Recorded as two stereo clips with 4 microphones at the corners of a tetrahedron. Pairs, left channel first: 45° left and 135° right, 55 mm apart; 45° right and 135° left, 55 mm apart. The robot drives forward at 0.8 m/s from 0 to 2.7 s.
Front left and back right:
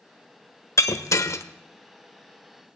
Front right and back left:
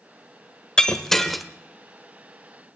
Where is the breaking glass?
30° left, 1.4 m; by 1.4 s 50° left, 1.0 m.